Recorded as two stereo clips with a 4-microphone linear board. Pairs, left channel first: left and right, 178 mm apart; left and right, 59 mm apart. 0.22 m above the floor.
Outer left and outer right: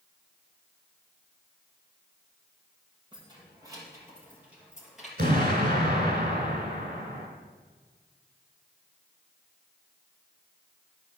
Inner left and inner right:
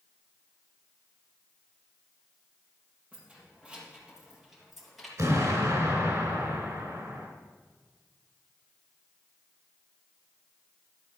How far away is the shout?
No shout in this recording.